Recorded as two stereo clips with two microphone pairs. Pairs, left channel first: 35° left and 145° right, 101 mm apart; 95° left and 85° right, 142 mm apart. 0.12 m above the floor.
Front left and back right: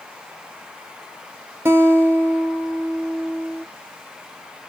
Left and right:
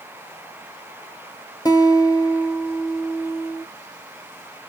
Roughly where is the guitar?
Behind left.